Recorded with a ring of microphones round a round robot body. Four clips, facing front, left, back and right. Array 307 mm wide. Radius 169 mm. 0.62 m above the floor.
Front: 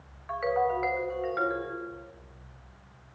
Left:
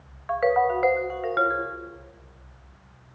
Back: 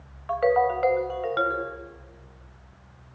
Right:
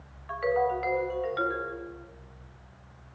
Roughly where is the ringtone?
Behind left.